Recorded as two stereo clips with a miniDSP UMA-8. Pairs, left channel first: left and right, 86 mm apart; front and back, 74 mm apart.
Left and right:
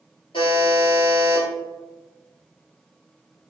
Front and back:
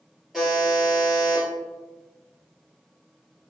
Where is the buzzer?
90° left, 1.8 m.